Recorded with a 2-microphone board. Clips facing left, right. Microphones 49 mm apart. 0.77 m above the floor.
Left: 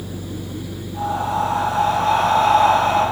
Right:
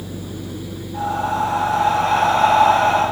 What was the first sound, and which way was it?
Breathing, 50° right (ahead or behind).